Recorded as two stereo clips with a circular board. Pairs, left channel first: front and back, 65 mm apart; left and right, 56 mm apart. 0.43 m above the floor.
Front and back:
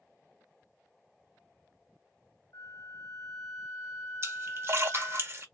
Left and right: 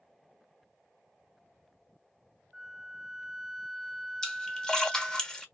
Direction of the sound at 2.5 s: Straight ahead.